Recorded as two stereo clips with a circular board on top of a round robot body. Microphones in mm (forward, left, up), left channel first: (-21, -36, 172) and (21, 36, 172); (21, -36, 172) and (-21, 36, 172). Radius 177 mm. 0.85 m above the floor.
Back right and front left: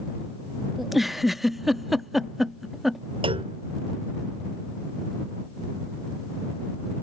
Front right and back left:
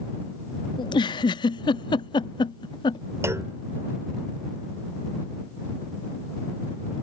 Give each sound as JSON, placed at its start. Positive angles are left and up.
{"t": 0.8, "sound": "a giggle", "azimuth_deg": -30}
{"t": 3.2, "sound": "a clunk", "azimuth_deg": 60}